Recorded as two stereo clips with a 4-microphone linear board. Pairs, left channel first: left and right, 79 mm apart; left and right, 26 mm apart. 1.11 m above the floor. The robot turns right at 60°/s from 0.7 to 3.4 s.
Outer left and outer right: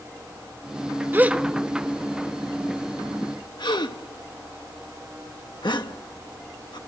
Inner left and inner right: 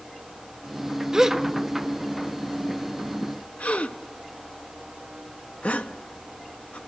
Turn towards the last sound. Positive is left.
turn(degrees=70)  # may be behind; listen again after turning